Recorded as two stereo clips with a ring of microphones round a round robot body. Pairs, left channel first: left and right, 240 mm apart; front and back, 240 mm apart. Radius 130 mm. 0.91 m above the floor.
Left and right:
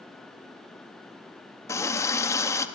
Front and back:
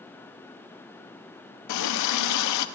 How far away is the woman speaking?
I don't hear a woman speaking.